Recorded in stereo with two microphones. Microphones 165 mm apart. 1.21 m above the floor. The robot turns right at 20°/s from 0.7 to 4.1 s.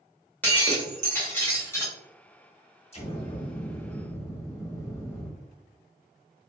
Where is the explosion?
40° left (ahead or behind), 0.9 m; by 5.3 s 15° left (ahead or behind), 0.9 m.